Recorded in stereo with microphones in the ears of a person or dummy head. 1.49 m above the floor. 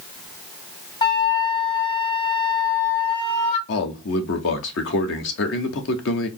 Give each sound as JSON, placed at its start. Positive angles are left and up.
{"t": 1.0, "sound": "a flute", "side_deg": 30, "distance_m": 1.0}
{"t": 3.7, "sound": "a man speaking", "side_deg": 70, "distance_m": 1.0}